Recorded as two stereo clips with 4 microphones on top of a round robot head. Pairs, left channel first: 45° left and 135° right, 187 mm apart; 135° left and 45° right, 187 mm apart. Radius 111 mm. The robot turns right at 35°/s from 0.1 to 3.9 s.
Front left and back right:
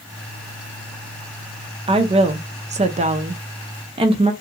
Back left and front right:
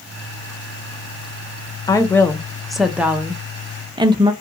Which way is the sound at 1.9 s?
170° right.